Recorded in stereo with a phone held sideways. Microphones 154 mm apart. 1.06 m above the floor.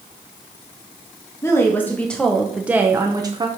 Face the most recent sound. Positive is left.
turn(degrees=-30)  # may be behind; listen again after turning